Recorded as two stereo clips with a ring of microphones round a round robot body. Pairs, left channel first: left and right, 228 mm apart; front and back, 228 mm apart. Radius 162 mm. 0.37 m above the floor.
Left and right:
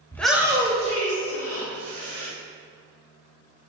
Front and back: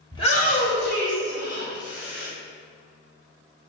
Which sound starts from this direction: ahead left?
A shout, at 0.1 s.